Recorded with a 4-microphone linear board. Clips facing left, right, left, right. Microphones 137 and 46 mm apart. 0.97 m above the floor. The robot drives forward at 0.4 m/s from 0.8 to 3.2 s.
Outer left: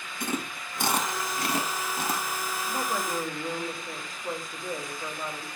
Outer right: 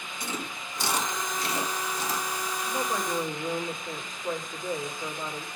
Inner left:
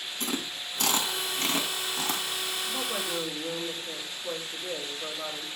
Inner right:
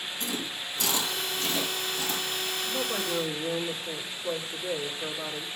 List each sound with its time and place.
0.2 s chewing: 55° left (ahead or behind), 1.6 m; by 2.2 s 60° left (ahead or behind), 1.4 m
2.7 s a woman speaking: 5° left (ahead or behind), 1.8 m; by 5.5 s centre (ahead or behind), 2.0 m